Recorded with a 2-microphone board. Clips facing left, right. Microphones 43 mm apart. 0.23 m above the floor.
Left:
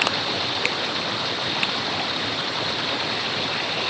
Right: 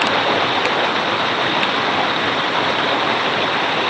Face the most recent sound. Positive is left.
turn(degrees=-45)  # may be behind; listen again after turning